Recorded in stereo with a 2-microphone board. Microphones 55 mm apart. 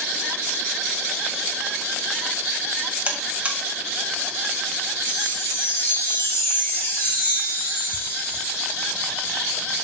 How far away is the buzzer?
About 1.4 m.